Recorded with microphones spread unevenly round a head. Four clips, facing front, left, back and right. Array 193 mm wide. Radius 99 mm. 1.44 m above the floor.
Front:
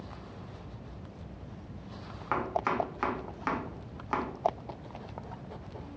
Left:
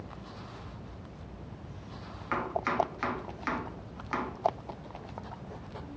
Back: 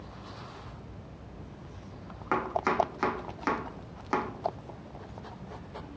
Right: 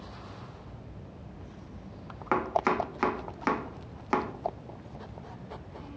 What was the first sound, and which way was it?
Chopping, 120° right.